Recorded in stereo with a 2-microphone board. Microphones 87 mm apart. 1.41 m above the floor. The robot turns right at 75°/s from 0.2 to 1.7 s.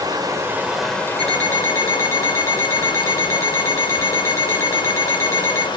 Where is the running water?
50° right, 1.1 m; by 5.8 s 65° left, 1.1 m.